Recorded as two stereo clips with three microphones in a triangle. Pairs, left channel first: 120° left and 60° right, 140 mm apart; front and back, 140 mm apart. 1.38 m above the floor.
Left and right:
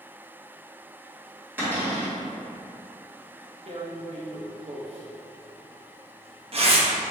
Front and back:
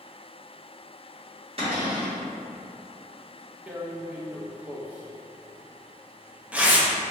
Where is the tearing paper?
100° right, 0.6 m.